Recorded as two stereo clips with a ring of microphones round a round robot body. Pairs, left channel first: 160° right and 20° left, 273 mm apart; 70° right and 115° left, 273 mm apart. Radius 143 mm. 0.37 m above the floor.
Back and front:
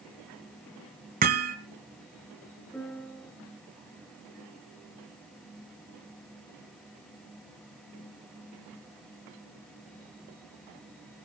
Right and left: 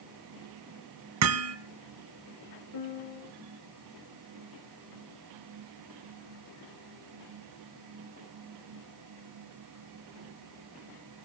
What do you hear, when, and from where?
1.2 s hammering: 80° left, 1.6 m
2.7 s a piano: 75° right, 1.7 m